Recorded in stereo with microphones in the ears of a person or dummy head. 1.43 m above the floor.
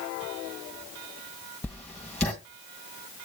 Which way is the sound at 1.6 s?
5° left (ahead or behind).